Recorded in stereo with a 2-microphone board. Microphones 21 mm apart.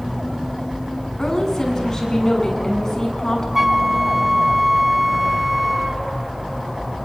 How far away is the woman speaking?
About 7.5 m.